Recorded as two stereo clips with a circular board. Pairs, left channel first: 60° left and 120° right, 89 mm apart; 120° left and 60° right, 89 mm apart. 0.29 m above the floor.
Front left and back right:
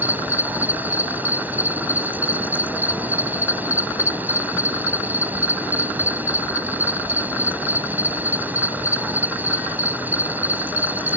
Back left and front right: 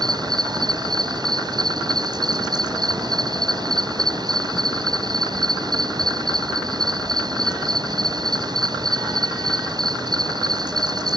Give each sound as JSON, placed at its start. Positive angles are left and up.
{"t": 0.0, "sound": "an insect", "azimuth_deg": -55}